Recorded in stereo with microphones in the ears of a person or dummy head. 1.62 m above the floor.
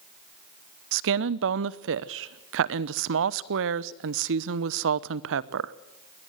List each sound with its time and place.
0.9 s a woman speaking: 65° right (ahead or behind), 0.8 m